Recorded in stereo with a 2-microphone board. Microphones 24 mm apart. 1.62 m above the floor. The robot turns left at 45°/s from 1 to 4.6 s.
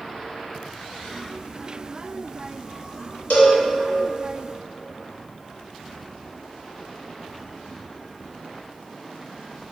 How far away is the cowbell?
About 0.7 m.